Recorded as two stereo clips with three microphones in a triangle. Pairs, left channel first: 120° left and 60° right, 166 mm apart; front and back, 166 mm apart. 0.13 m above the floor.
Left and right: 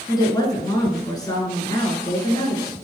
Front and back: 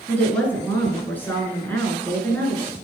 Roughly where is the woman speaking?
Left.